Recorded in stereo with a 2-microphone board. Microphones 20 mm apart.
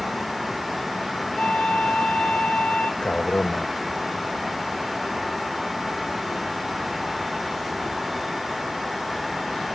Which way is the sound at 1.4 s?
65° left (ahead or behind).